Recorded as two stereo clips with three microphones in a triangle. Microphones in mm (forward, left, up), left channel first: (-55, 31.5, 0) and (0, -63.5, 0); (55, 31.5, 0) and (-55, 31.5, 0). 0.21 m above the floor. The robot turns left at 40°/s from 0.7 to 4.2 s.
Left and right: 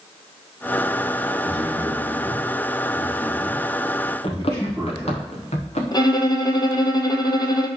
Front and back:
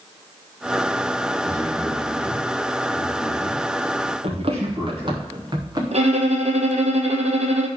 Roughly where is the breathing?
No breathing in this recording.